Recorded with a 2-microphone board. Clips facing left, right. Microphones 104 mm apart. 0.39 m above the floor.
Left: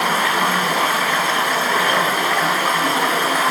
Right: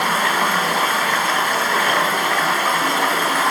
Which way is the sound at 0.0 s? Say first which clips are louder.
Even; 5° left (ahead or behind).